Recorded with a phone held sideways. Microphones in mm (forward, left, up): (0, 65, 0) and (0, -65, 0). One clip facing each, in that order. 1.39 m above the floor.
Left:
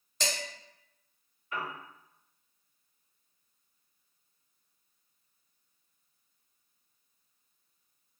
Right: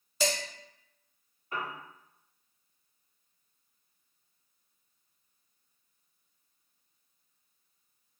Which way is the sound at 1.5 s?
30° right (ahead or behind).